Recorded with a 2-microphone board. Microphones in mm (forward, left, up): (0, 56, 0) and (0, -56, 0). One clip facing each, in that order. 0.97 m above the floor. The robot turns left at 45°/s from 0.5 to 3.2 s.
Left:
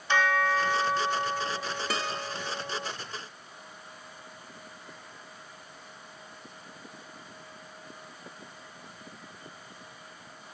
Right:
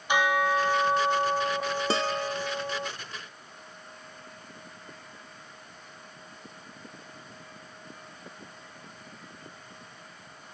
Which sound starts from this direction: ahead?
A bell, at 0.1 s.